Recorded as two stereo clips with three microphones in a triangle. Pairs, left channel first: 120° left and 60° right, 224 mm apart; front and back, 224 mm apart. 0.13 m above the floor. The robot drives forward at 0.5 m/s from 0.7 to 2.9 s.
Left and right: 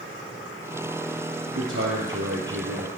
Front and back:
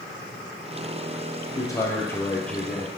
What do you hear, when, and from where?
1.6 s a man speaking: 70° right, 2.5 m; by 2.9 s 90° right, 2.5 m